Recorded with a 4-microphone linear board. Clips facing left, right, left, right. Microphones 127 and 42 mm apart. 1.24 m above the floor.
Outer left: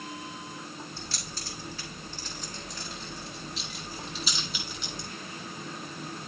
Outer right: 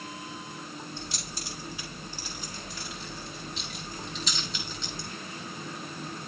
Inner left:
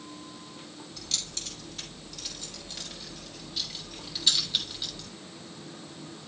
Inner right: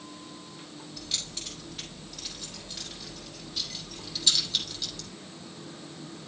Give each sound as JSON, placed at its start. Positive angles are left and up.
{"t": 1.0, "sound": "keys jangling", "side_deg": -20, "distance_m": 5.0}